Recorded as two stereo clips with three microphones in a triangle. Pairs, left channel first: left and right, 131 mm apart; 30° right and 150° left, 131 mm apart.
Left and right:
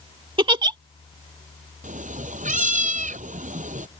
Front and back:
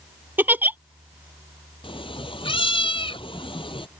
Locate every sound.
0.4 s a giggle: 135° right
1.8 s a cat meowing: 80° right